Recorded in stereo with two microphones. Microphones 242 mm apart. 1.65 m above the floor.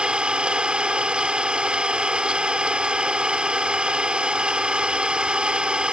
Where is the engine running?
5° right (ahead or behind).